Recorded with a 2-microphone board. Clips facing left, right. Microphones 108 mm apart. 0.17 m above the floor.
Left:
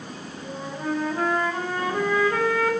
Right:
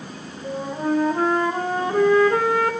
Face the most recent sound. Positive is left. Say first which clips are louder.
# right 6 dB
turn(degrees=-30)  # may be behind; listen again after turning